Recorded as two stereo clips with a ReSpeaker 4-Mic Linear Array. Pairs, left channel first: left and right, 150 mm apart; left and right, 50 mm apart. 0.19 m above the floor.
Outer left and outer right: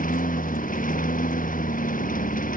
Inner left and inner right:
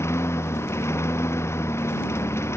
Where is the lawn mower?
70° left (ahead or behind).